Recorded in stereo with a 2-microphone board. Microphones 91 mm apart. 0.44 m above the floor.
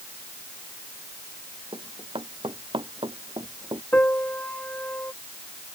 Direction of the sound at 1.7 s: 80° right.